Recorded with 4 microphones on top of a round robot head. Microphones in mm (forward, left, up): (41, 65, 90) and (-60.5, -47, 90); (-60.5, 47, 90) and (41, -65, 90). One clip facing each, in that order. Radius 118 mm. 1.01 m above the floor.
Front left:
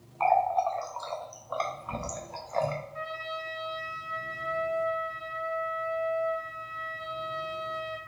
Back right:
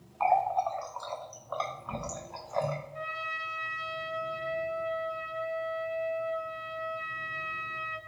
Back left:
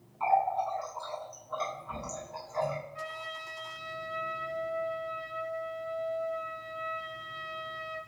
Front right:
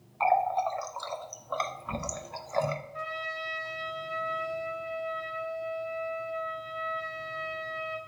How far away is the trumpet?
About 1.3 m.